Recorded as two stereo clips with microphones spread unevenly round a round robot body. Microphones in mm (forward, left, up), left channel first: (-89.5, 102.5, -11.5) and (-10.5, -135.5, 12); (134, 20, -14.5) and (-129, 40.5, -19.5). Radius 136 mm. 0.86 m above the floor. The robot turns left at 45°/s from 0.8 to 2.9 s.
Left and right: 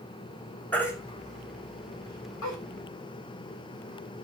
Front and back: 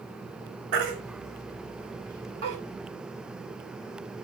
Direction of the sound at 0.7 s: 170° right.